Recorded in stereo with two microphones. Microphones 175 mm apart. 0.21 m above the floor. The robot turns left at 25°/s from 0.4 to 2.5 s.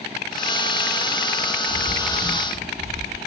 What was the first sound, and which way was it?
A bird, 35° right (ahead or behind).